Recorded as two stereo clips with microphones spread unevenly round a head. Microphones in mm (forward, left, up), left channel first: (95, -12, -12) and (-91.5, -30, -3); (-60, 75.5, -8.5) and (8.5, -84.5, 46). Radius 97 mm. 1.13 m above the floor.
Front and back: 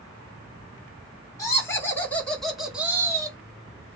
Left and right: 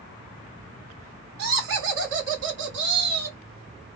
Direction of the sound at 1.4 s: 65° right.